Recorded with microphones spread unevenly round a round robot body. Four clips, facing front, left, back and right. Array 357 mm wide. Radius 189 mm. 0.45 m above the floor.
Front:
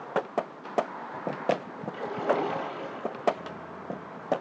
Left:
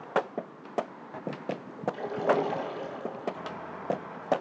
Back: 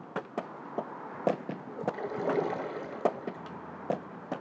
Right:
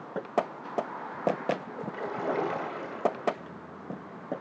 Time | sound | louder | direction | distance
1.9 | a splash | left 4 dB, front 4 dB | 140° left | 2.5 m